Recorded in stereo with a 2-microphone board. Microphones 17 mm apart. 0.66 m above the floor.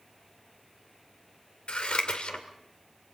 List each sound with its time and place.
1.7 s scissors: 70° left (ahead or behind), 2 m